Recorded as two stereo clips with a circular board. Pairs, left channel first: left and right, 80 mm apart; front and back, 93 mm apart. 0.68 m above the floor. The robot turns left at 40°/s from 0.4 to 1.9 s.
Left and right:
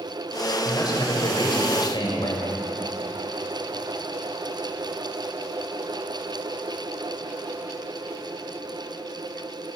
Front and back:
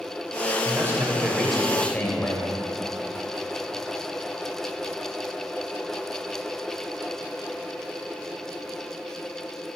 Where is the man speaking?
125° left, 3.5 m; by 2.5 s 75° left, 3.5 m.